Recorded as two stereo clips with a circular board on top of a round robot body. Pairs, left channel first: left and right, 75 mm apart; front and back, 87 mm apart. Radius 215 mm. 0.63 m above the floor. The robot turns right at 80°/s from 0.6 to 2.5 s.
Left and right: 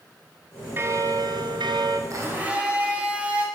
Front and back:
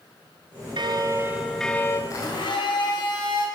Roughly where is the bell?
Behind right.